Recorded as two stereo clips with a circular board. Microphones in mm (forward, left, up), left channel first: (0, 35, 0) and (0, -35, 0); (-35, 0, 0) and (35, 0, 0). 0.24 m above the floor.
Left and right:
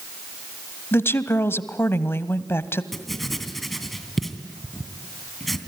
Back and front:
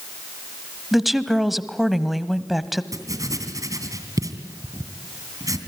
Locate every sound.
0.9 s a woman speaking: 85° left, 1.1 m
2.9 s writing: straight ahead, 2.5 m